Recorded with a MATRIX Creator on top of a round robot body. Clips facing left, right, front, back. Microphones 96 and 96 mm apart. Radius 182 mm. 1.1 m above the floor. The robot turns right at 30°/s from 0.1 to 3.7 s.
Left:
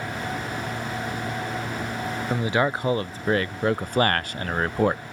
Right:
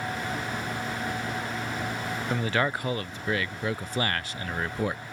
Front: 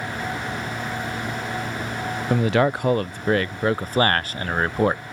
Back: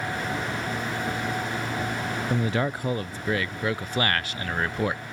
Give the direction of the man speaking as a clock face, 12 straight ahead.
12 o'clock.